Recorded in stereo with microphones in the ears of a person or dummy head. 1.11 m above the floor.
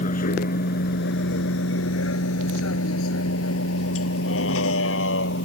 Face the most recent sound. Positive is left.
turn(degrees=75)  # may be behind; listen again after turning